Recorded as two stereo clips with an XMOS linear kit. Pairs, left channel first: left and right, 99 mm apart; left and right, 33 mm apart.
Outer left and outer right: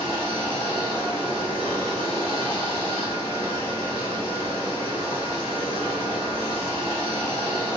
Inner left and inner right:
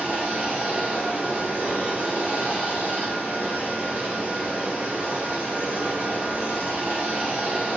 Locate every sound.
0.0 s running water: 80° right, 2.0 m